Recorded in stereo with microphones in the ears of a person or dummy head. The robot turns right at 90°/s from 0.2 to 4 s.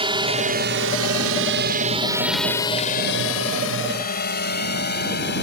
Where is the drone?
25° right (ahead or behind); by 5.4 s 55° left (ahead or behind).